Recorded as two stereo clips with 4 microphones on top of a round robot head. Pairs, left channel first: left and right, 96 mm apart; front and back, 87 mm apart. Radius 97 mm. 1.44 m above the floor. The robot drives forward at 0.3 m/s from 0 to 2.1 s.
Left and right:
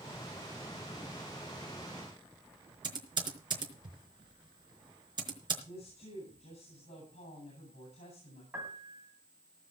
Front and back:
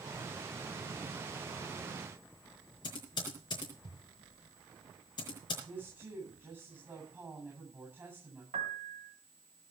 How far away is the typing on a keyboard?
About 4 m.